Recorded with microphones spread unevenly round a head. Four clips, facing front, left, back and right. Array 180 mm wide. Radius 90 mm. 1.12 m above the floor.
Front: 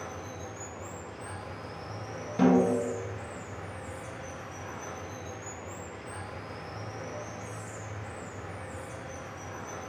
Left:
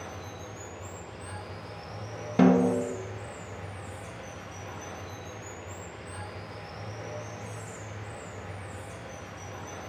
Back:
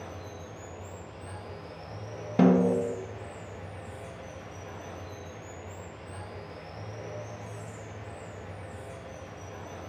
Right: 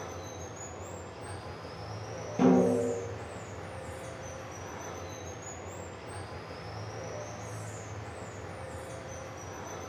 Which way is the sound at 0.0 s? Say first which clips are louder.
Even, front 2 dB; 10° right.